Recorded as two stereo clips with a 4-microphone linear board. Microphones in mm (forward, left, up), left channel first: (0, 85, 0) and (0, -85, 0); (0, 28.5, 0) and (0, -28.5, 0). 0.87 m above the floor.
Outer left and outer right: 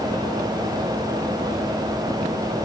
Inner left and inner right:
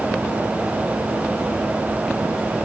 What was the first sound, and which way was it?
Only background noise.